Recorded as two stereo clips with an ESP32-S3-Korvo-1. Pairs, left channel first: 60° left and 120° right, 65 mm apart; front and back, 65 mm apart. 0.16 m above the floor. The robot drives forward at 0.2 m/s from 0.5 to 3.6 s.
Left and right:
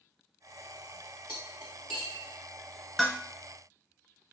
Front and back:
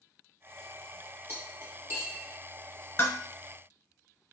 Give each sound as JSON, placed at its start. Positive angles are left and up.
{"t": 1.3, "sound": "cutlery clinking", "azimuth_deg": 130, "distance_m": 1.2}
{"t": 3.0, "sound": "dishes clattering", "azimuth_deg": -30, "distance_m": 0.9}